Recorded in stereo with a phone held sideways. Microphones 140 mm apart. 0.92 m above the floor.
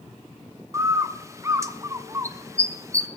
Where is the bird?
20° right (ahead or behind), 0.8 m.